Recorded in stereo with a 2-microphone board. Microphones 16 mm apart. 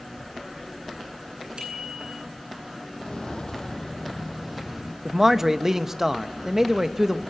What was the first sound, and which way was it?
A bicycle bell, 60° right (ahead or behind).